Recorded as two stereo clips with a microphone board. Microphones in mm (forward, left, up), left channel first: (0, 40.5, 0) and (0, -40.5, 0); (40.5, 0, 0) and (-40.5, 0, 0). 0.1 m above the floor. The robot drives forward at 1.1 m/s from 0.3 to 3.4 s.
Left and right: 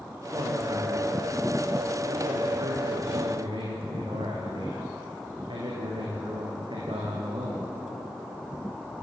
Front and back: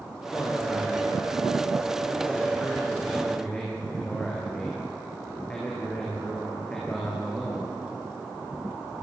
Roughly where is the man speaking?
Ahead right.